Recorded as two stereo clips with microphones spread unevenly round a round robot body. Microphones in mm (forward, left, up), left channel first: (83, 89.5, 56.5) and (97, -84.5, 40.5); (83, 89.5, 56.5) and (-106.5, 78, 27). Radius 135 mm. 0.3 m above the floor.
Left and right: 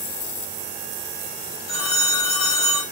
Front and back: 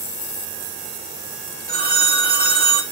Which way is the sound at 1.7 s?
155° left.